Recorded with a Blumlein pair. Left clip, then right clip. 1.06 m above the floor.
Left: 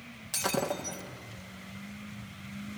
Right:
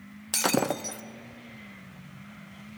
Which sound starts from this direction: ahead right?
Breaking glass, at 0.3 s.